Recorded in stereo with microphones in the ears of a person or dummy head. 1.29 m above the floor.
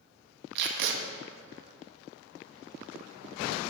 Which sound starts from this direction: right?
Tape being pulled, at 0.6 s.